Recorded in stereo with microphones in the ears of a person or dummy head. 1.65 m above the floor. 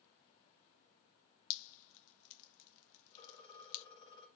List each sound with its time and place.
1.5 s dripping: 80° left, 0.5 m
3.1 s a phone ringing: 25° left (ahead or behind), 2.5 m